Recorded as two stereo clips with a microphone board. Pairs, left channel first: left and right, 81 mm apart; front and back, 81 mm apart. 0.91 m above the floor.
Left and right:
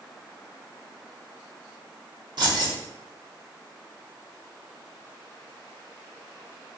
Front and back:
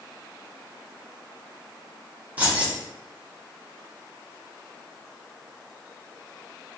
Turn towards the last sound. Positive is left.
turn(degrees=-110)